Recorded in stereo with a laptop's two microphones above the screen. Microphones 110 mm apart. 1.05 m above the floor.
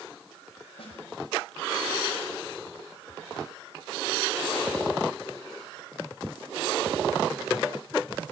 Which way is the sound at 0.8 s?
65° left (ahead or behind).